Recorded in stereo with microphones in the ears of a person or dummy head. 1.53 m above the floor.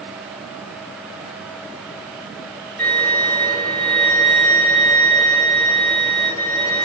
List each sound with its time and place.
2.8 s a violin: 10° left (ahead or behind), 1.2 m